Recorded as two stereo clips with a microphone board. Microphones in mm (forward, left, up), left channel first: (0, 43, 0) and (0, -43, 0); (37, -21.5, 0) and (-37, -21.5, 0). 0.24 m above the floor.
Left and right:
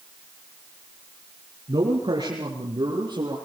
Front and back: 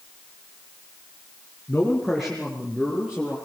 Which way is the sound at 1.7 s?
80° right.